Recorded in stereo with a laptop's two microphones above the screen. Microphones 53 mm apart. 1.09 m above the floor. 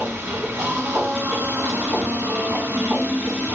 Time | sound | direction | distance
0.0 | a machine running | 45° right (ahead or behind) | 1.4 m